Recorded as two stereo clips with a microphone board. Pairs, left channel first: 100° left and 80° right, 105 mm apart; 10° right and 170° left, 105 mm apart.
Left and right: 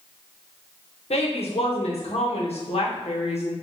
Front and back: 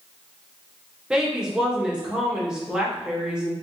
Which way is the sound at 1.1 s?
90° left.